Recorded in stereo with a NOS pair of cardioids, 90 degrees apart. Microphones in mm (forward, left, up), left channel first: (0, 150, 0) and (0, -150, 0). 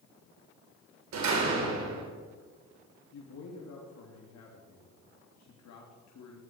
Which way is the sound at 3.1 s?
65° left.